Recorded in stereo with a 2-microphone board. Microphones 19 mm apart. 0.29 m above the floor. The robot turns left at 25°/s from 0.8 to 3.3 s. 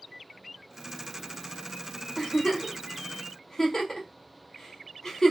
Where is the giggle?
60° left (ahead or behind), 1.0 m; by 5.3 s 35° left (ahead or behind), 1.0 m.